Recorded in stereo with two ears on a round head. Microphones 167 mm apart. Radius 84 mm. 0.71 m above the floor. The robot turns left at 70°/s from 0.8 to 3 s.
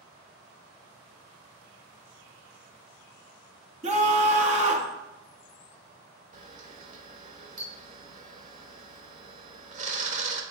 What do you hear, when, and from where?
3.8 s a scream: 35° right (ahead or behind), 1.6 m
6.3 s a camera shutter: 40° right (ahead or behind), 1.1 m